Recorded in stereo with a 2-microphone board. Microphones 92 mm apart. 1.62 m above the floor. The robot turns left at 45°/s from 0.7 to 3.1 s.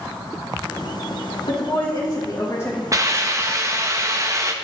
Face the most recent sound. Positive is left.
turn(degrees=-30)  # may be behind; listen again after turning